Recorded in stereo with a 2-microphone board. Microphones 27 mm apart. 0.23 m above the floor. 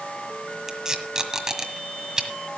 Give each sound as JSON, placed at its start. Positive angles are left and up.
{"t": 0.7, "sound": "tape being pulled", "side_deg": -25, "distance_m": 1.6}